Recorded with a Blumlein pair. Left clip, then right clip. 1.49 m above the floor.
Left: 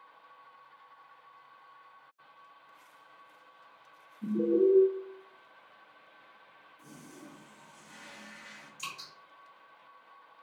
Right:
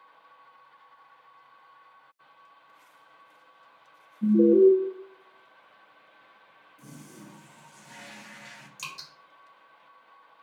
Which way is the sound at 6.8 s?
40° right.